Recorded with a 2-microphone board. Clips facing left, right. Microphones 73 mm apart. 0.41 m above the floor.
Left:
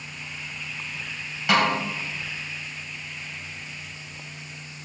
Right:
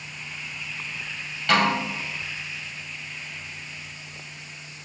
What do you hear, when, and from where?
1.5 s a snare drum: 10° left (ahead or behind), 2.5 m